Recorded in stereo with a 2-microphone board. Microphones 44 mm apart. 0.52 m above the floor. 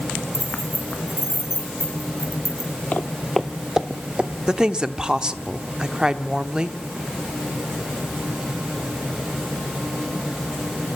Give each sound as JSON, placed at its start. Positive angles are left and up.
{"t": 0.3, "sound": "keys jangling", "side_deg": 80, "distance_m": 4.5}
{"t": 2.9, "sound": "footsteps", "side_deg": 35, "distance_m": 0.7}
{"t": 4.5, "sound": "a woman speaking", "side_deg": -20, "distance_m": 1.0}